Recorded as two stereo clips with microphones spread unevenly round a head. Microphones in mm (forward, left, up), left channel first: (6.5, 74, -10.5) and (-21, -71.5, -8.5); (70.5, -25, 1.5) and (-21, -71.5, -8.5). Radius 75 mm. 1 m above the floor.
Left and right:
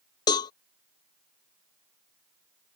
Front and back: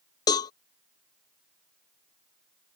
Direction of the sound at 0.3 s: 30° left.